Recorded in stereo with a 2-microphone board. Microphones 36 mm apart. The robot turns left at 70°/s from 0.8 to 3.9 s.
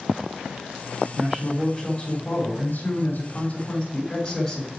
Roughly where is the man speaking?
Behind right.